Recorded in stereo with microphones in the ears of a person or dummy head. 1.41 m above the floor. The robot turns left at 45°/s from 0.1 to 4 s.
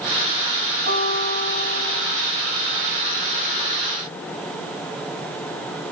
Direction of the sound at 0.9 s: 50° right.